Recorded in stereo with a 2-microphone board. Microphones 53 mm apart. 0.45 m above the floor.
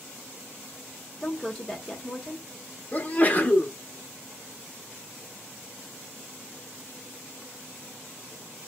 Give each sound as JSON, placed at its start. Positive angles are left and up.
{"t": 1.2, "sound": "a woman speaking", "side_deg": 5, "distance_m": 0.8}
{"t": 2.9, "sound": "a sneeze", "side_deg": 30, "distance_m": 0.8}